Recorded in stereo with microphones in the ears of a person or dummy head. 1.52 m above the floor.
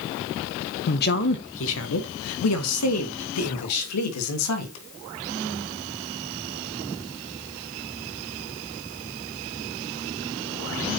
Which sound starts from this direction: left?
A man speaking, at 0.9 s.